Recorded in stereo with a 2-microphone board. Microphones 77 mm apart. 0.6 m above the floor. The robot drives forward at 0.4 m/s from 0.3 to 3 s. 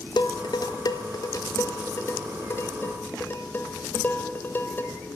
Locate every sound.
0.2 s dishes clattering: 65° left (ahead or behind), 0.7 m; by 4.9 s 25° left (ahead or behind), 1.4 m